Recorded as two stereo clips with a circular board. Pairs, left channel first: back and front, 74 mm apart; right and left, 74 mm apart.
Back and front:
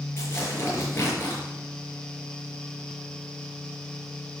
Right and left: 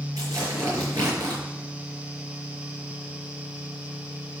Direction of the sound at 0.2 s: 125° left.